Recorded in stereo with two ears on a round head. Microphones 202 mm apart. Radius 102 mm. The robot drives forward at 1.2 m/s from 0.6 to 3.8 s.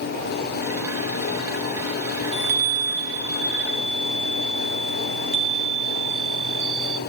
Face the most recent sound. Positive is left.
turn(degrees=-30)  # may be behind; listen again after turning